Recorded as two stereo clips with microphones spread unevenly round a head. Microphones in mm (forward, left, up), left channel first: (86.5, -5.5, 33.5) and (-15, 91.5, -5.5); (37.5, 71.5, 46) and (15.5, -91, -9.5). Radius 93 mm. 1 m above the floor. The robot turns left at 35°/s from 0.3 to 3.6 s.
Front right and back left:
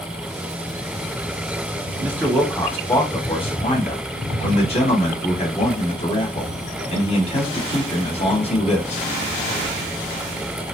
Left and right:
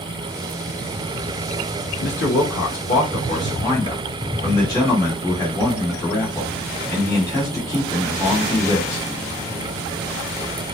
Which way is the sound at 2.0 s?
60° left.